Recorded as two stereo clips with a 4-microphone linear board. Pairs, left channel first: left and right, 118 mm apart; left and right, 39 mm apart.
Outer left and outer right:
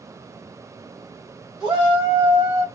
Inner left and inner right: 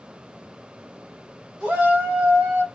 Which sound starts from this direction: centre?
A shout, at 1.6 s.